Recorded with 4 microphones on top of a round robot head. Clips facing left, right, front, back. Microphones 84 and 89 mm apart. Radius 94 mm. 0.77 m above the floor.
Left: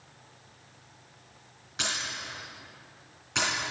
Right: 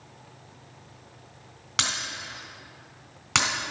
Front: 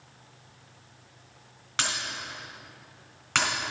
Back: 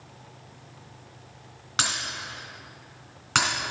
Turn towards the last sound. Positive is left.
turn(degrees=-100)